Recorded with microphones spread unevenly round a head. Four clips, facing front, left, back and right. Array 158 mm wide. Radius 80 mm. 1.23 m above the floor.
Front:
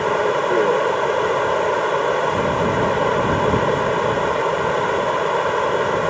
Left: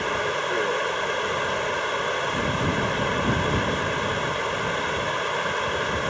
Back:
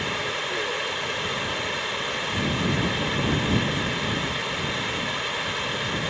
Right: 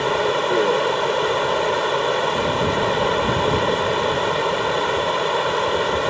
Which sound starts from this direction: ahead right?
Running water, at 0.0 s.